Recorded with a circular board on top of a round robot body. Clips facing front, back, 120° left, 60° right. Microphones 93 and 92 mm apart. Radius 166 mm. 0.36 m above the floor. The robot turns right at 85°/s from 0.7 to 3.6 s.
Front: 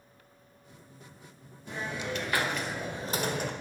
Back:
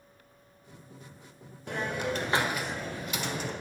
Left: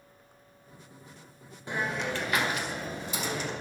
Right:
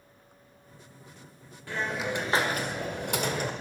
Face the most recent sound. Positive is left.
turn(degrees=-10)